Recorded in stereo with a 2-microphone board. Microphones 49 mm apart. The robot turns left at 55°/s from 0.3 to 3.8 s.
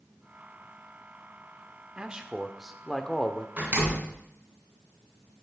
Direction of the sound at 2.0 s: 20° right (ahead or behind).